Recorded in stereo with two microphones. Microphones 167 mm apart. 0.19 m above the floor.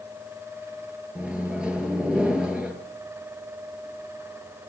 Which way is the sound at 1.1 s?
5° right (ahead or behind).